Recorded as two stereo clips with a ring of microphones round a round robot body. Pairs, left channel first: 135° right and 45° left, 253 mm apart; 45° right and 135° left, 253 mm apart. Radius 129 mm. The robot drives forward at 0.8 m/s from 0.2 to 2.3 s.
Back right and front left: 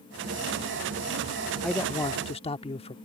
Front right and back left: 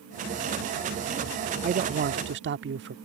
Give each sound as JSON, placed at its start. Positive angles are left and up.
{"t": 1.6, "sound": "a man speaking", "azimuth_deg": 135}